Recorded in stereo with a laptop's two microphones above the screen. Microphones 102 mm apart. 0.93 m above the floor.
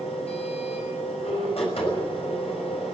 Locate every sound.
0.0 s a machine running: 80° left, 6 m